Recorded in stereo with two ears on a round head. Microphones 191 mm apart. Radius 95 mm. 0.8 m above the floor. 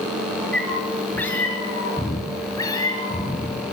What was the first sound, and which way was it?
A cat meowing, 5° left (ahead or behind).